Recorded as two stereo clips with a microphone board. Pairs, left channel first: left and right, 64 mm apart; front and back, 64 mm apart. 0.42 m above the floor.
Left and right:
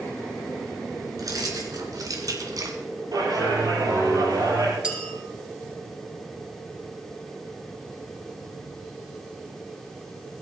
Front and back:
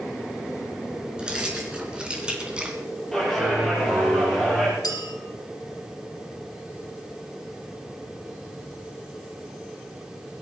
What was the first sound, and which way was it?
Keys jangling, 105° right.